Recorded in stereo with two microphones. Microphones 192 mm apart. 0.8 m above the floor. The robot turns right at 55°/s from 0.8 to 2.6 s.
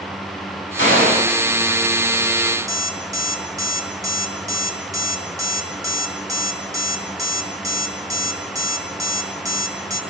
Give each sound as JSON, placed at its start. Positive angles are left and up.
{"t": 0.8, "sound": "a gunshot", "side_deg": 85, "distance_m": 7.0}
{"t": 2.7, "sound": "an alarm clock", "side_deg": -15, "distance_m": 3.5}